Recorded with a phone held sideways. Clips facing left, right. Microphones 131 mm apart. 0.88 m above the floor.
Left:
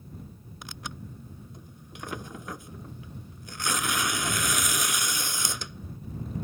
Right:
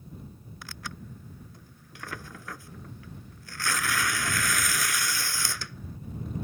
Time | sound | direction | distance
0.6 | tearing paper | 20° left (ahead or behind) | ?